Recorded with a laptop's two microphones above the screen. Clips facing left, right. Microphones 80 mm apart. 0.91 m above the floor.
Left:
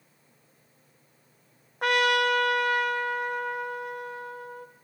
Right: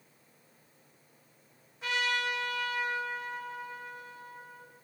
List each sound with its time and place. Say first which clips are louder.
1.8 s a trumpet: left 9 dB; 65° left (ahead or behind), 0.6 m